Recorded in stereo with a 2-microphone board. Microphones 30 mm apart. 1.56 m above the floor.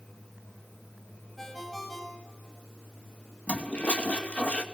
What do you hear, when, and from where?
1.4 s a ringtone: 5° left (ahead or behind), 6.5 m
3.5 s a toilet flushing: 45° left (ahead or behind), 2.5 m